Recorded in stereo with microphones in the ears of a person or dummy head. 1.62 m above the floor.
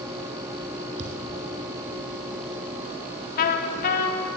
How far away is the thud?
About 3.5 m.